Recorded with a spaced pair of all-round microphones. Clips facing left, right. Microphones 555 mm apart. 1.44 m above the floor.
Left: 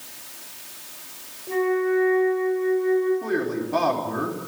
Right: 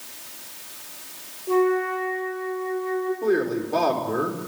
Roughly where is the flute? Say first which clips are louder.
Right 1 dB; left.